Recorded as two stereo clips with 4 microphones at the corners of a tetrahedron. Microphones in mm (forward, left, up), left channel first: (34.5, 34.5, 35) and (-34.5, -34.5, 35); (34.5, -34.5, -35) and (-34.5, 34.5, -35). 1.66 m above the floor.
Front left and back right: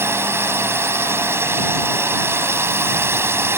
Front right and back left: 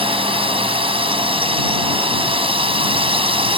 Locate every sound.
0.0 s a drone: 160° left